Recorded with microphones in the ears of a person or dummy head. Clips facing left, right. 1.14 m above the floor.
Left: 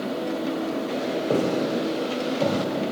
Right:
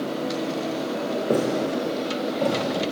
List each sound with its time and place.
1.3 s footsteps: 10° right (ahead or behind), 3 m; by 2.9 s 5° left (ahead or behind), 5 m